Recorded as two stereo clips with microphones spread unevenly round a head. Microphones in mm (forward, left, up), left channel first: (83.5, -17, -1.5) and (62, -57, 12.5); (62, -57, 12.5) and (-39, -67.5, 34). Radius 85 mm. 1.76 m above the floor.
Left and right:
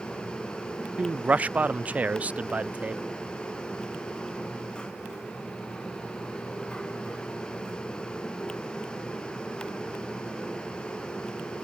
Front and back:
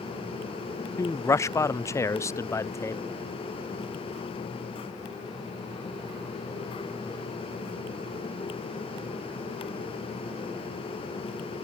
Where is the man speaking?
60° right.